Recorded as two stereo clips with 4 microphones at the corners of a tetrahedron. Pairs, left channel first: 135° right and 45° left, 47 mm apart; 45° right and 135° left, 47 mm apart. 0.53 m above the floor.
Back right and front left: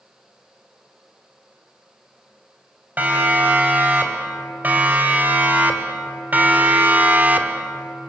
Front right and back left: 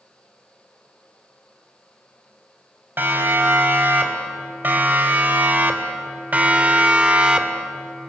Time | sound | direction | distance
3.0 | a siren | 95° left | 4 m